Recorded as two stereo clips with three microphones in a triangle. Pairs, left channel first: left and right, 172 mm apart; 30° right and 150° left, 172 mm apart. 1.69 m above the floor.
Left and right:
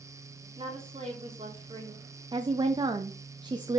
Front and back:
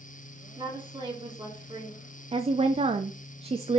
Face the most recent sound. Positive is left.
turn(degrees=-155)